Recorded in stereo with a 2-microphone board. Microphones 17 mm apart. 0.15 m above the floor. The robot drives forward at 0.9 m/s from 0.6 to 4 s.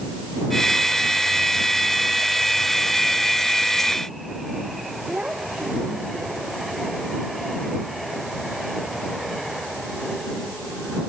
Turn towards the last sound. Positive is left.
turn(degrees=-90)